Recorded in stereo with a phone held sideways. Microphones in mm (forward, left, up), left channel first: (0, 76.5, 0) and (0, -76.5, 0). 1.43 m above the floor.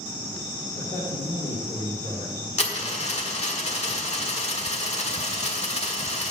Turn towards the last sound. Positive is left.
turn(degrees=50)  # may be behind; listen again after turning